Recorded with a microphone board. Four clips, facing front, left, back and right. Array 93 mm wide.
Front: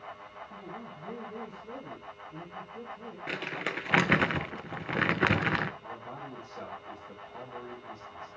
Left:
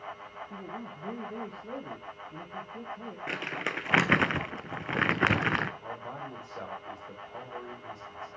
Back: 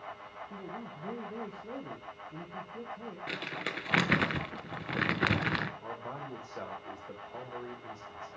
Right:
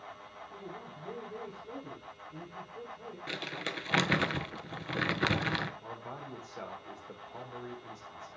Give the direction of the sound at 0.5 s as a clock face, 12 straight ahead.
8 o'clock.